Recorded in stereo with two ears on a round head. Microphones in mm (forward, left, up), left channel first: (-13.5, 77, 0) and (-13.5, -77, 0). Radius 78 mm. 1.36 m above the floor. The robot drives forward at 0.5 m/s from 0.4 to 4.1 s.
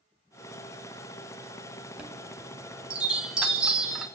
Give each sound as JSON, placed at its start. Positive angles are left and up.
{"t": 2.0, "sound": "a chime", "side_deg": -10, "distance_m": 0.9}